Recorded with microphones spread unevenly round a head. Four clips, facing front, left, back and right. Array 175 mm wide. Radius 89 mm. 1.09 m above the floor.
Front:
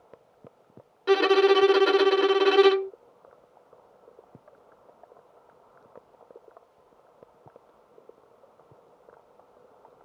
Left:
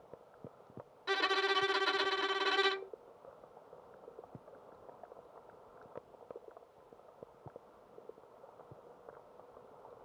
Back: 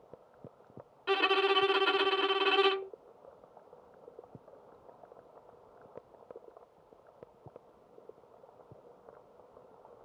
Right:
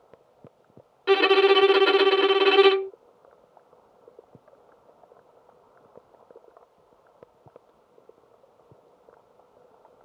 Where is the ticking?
I don't hear ticking.